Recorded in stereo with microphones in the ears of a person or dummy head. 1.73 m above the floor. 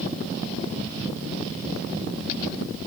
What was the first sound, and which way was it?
Only background noise.